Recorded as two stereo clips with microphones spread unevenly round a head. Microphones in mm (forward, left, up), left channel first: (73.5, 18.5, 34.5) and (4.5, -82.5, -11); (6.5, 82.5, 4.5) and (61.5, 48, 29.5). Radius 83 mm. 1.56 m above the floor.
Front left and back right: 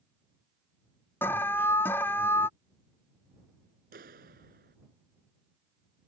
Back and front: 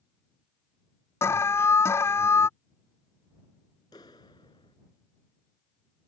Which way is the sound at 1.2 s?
145° left.